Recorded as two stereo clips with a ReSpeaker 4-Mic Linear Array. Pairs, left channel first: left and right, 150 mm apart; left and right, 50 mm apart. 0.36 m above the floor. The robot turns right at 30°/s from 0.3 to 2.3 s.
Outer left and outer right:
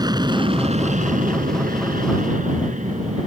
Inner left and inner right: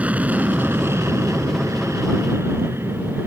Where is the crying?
No crying in this recording.